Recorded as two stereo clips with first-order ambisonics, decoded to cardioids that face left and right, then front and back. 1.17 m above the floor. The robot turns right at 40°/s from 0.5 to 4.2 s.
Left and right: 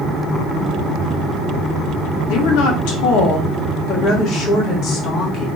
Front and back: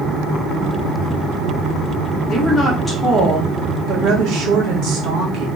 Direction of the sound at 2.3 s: 70° left.